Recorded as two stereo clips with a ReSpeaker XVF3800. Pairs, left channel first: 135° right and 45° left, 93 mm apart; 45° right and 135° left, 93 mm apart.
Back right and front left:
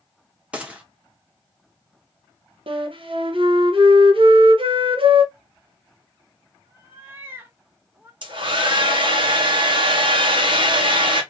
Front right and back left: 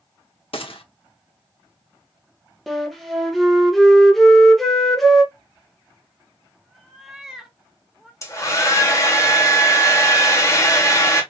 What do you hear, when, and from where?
0.5 s a gunshot: 35° right, 1.0 m
2.7 s a flute: 45° left, 0.9 m
5.3 s a cat meowing: 55° left, 1.0 m
8.2 s a hair dryer: 10° left, 1.2 m